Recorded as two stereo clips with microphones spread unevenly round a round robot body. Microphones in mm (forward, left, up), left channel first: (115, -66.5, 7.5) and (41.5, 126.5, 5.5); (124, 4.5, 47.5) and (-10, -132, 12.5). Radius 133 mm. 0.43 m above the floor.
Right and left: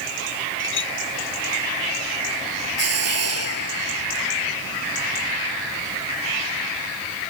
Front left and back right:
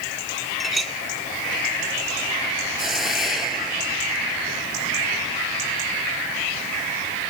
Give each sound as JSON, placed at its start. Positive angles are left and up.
{"t": 0.6, "sound": "a clink", "azimuth_deg": -45}
{"t": 2.8, "sound": "a hiss", "azimuth_deg": 135}